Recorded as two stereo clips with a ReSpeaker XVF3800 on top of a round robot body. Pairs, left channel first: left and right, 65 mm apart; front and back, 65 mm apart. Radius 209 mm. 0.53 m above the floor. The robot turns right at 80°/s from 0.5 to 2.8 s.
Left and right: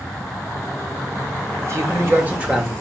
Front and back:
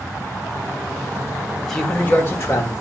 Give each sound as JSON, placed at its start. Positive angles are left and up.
{"t": 1.6, "sound": "a man speaking", "azimuth_deg": -90, "distance_m": 1.5}